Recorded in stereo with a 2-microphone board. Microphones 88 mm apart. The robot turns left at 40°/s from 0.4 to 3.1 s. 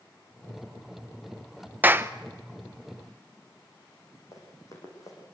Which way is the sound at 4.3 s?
40° left (ahead or behind).